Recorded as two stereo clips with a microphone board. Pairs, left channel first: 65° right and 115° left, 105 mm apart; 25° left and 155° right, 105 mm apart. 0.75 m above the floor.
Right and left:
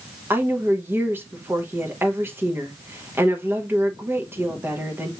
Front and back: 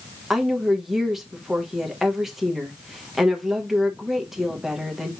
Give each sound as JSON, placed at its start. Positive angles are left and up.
{"t": 0.3, "sound": "a woman speaking", "azimuth_deg": 120, "distance_m": 0.9}